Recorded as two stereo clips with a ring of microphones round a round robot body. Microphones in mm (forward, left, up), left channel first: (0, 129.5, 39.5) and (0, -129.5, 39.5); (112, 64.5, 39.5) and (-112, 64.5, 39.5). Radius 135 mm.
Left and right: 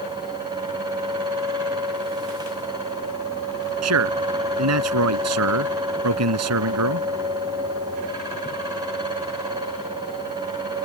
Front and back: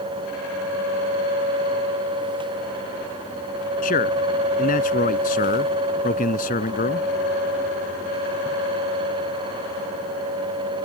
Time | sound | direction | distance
3.8 | a man speaking | 60° right | ?